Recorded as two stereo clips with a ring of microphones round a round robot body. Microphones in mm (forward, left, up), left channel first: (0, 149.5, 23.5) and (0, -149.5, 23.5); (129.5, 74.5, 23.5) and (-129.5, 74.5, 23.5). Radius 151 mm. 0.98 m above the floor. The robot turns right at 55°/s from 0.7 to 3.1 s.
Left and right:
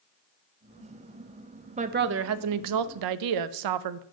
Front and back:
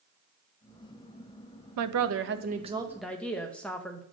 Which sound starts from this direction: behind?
A woman speaking, at 1.8 s.